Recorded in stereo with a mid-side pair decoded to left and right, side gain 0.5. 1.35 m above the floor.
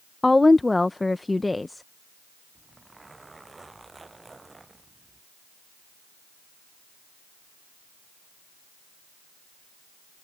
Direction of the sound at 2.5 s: 20° right.